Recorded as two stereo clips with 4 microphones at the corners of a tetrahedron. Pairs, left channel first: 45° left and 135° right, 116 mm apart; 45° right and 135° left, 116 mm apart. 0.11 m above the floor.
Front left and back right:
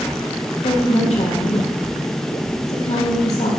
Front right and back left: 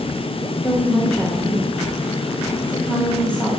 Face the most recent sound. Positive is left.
turn(degrees=35)